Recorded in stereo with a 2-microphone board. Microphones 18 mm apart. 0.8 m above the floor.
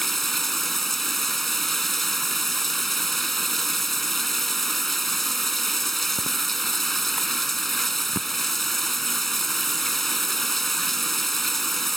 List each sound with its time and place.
0.0 s running water: 5° left (ahead or behind)